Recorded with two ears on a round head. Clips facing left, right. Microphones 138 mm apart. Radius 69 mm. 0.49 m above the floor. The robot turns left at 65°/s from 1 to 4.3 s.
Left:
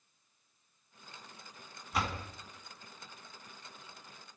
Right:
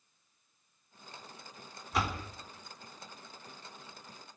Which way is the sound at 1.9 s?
Centre (ahead or behind).